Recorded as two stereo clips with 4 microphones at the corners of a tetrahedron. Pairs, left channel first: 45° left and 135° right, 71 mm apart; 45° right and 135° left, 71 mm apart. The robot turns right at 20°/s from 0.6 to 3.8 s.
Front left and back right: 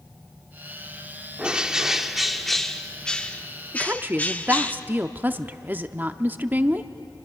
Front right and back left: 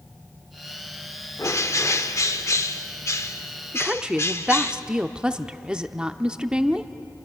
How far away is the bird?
About 0.8 m.